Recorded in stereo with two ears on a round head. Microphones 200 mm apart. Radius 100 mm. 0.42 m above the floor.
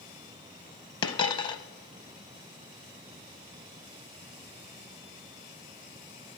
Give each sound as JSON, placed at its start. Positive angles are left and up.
{"t": 1.0, "sound": "a dropped coin", "side_deg": 20, "distance_m": 0.6}